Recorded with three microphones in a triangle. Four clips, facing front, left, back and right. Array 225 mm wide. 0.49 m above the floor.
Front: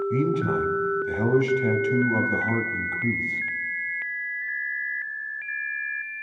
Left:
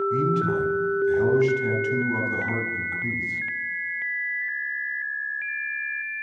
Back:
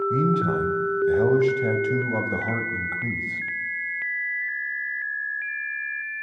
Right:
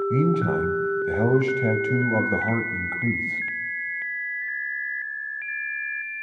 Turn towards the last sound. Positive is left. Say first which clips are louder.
# right 1 dB, even
turn(degrees=-105)